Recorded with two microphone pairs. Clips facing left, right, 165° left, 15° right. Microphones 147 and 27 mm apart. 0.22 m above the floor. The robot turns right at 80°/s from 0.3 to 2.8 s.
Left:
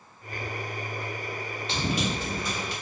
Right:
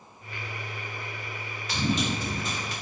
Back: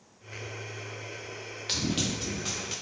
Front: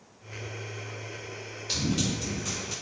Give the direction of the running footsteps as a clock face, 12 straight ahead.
7 o'clock.